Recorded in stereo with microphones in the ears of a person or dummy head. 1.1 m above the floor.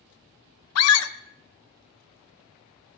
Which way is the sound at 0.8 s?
85° left.